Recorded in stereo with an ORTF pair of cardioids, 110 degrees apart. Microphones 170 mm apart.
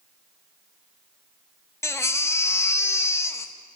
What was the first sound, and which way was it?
A baby crying, 15° left.